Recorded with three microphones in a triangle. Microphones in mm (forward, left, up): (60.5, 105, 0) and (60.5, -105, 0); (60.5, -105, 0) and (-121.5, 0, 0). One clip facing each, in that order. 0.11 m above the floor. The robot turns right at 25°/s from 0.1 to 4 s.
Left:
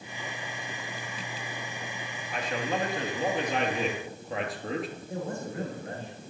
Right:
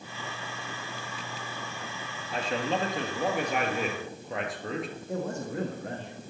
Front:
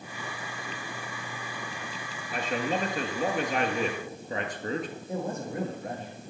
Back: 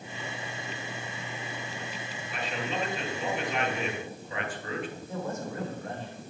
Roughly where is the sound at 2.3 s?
Ahead right.